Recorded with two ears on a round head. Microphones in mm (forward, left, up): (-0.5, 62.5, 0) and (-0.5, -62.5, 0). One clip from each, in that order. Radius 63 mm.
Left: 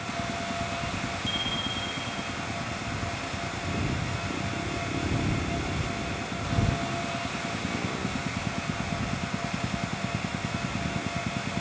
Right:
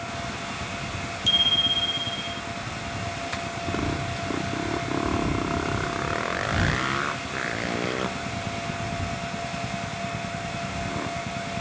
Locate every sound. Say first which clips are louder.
1.3 s a bicycle bell: right 12 dB; 60° right (ahead or behind)